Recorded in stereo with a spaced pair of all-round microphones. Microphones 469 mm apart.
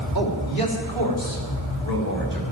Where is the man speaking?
50° left (ahead or behind), 3 m; by 2.4 s 45° left (ahead or behind), 4.5 m.